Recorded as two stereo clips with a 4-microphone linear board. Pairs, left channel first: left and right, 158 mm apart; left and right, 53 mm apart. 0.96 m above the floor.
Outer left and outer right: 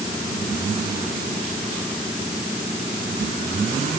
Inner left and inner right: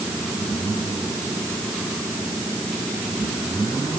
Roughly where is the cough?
I don't hear a cough.